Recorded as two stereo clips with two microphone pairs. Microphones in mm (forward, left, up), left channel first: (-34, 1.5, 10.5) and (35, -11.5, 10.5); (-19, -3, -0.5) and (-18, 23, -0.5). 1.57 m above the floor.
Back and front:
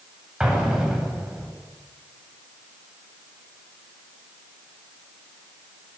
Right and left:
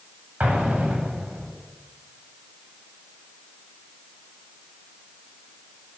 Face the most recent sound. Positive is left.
turn(degrees=70)